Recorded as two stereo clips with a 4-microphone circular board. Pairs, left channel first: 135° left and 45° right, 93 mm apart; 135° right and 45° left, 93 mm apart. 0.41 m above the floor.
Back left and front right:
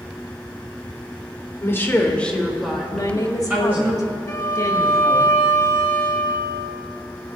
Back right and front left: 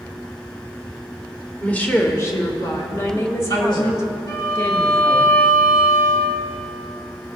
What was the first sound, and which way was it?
A woman speaking, 160° left.